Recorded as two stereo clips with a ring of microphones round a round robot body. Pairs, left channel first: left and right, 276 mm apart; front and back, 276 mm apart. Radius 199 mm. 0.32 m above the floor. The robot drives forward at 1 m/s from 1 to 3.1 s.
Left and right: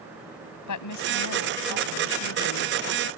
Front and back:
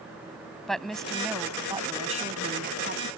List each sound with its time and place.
0.7 s a woman speaking: 90° left; by 3.1 s 130° left